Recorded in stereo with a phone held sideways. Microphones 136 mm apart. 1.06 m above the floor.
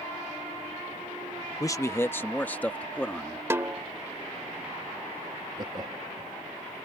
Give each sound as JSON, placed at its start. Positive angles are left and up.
{"t": 1.6, "sound": "a man speaking", "side_deg": 25}
{"t": 3.5, "sound": "a snare drum", "side_deg": -20}
{"t": 5.6, "sound": "laughter", "side_deg": -30}